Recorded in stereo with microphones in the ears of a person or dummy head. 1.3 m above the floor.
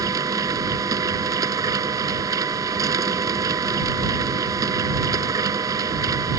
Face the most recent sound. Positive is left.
turn(degrees=-20)  # may be behind; listen again after turning